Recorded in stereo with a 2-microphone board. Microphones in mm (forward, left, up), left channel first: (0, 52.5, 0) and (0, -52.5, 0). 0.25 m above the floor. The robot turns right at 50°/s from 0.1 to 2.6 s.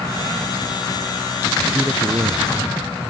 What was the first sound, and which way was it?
A man speaking, 170° right.